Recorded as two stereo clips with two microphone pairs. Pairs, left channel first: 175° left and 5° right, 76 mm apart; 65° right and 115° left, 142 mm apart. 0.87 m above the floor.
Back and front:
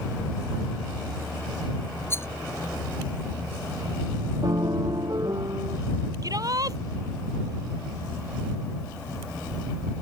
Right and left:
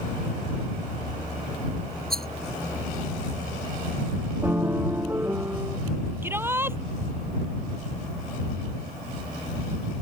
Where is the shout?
40° left.